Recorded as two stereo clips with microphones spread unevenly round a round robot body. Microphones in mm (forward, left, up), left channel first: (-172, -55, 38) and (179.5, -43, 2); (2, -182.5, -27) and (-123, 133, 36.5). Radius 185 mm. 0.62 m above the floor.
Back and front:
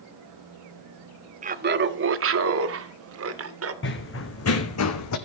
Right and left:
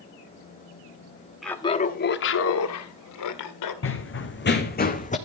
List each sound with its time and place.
1.4 s laughter: straight ahead, 0.8 m; by 3.7 s 45° right, 2 m
3.8 s running footsteps: 125° right, 2.5 m; by 5.2 s 140° right, 2 m